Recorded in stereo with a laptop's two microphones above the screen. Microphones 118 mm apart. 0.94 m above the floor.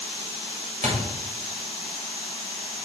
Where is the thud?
85° right, 2 m.